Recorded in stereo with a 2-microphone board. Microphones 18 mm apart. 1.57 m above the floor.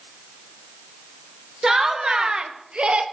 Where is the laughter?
35° right (ahead or behind), 1.1 m; by 3.0 s 80° right, 0.9 m.